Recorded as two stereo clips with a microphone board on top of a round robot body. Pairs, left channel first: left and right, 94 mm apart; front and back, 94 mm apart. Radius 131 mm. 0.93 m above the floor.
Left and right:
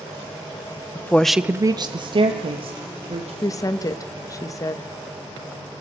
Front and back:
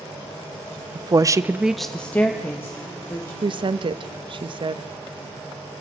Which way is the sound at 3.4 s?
145° left.